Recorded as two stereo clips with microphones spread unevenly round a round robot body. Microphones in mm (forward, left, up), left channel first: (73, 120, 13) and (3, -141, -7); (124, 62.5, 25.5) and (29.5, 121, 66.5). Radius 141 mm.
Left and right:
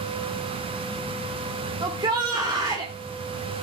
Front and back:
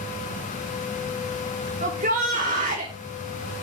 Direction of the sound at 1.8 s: Straight behind.